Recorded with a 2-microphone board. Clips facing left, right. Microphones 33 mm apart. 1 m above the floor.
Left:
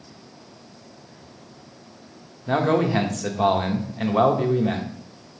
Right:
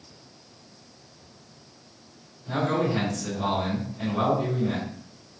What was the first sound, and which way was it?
A man speaking, 70° left (ahead or behind).